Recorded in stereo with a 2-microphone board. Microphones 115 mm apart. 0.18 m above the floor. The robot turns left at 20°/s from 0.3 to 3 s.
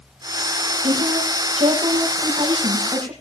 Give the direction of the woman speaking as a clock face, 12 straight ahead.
3 o'clock.